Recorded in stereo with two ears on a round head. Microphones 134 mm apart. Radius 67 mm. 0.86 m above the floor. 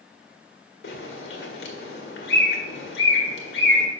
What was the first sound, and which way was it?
A bird, 85° left.